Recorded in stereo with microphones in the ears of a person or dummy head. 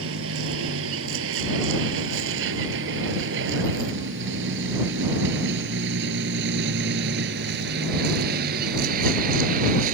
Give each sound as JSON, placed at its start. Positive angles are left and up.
{"t": 0.0, "sound": "a vehicle", "side_deg": -80}